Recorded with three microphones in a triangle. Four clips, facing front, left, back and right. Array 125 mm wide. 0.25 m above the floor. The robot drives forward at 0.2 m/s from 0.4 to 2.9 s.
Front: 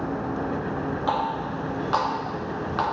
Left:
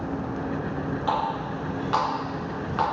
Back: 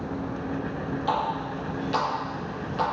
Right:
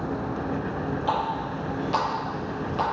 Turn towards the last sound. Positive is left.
turn(degrees=40)